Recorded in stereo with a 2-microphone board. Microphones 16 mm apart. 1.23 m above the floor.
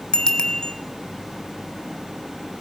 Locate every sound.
0.1 s a bicycle bell: 55° left (ahead or behind), 3 m